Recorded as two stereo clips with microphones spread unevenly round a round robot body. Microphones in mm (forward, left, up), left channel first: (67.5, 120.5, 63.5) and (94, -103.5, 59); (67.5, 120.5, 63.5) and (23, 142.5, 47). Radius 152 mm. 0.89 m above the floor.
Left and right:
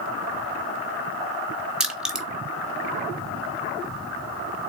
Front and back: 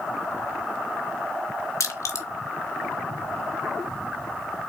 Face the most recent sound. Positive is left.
turn(degrees=5)